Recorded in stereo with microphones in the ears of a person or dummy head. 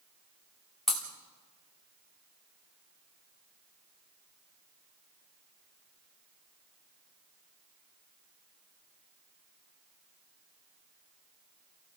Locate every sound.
0.9 s breaking glass: centre (ahead or behind), 2.5 m